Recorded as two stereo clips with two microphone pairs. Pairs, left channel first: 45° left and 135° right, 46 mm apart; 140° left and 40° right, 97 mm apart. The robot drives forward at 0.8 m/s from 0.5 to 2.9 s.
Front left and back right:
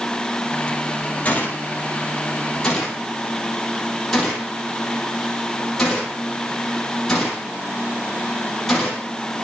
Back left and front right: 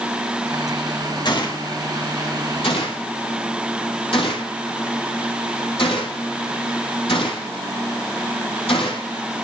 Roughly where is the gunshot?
Left.